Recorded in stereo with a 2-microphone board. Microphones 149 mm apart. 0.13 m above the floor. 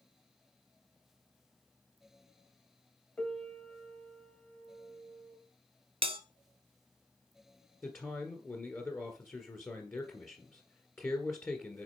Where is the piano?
10° left (ahead or behind), 1.4 m.